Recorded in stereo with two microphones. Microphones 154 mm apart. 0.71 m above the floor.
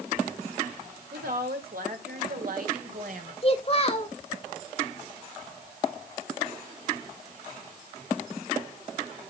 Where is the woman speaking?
80° right, 2 m; by 3.3 s 60° right (ahead or behind), 2.5 m.